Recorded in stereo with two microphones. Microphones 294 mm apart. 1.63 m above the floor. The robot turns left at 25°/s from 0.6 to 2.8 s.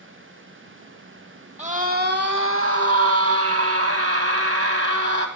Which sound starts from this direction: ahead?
A scream, at 1.6 s.